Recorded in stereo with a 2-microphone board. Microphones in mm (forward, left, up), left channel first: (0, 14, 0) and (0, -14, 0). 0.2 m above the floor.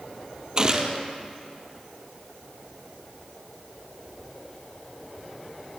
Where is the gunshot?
30° right (ahead or behind), 2.5 m.